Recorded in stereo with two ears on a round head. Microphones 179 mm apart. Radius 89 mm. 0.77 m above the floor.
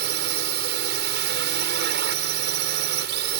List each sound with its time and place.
0.0 s a drone: 60° right (ahead or behind)